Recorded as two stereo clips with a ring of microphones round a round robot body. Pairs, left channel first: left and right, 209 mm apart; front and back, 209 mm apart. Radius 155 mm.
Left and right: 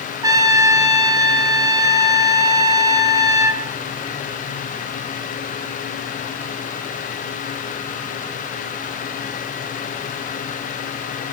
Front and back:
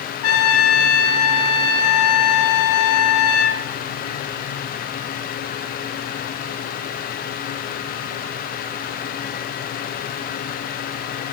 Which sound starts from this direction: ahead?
A trumpet, at 0.2 s.